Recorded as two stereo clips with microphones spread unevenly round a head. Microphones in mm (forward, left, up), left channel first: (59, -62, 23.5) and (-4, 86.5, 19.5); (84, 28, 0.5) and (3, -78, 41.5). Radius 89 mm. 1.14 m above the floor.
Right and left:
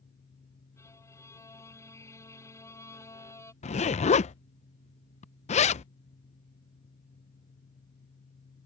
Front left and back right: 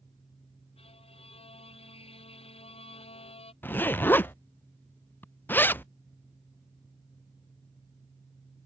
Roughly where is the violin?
Ahead.